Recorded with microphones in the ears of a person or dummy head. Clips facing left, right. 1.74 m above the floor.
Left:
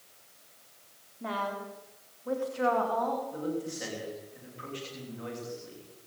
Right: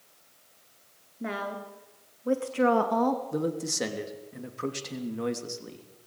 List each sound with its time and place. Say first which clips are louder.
1.2 s a woman speaking: right 1 dB; 30° right (ahead or behind), 4 m; by 3.2 s 60° right (ahead or behind), 2 m
3.3 s a man speaking: right 4 dB; 80° right, 3 m